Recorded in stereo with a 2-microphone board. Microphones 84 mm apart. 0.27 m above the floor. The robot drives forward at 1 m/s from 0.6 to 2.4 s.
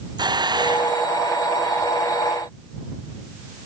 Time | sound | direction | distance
0.2 | a hiss | 60° right (ahead or behind) | ?